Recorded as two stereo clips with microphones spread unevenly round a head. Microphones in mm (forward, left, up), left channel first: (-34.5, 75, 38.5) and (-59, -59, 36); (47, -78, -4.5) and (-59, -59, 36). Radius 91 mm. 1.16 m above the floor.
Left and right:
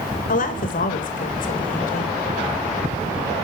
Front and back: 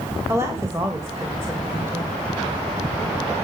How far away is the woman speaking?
About 1.5 m.